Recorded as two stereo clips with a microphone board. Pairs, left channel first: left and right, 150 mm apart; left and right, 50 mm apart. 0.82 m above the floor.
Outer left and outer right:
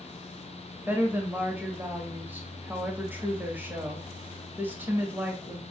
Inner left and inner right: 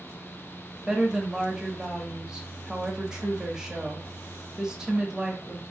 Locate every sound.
0.9 s a woman speaking: 15° right (ahead or behind), 0.8 m